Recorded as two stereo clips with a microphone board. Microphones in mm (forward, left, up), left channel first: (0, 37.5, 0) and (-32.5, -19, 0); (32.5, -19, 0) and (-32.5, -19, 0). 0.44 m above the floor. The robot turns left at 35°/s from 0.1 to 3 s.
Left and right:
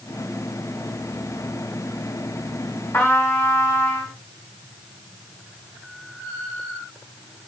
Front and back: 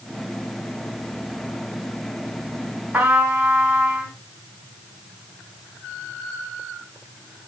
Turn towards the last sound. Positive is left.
turn(degrees=110)